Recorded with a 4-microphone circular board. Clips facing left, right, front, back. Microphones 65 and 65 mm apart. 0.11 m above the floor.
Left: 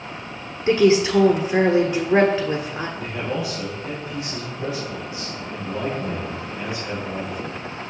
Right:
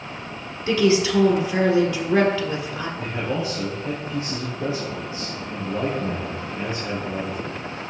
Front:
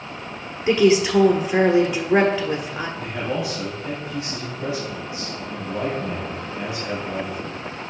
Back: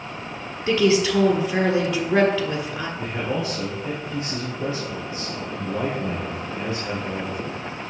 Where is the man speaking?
135° right, 3 m.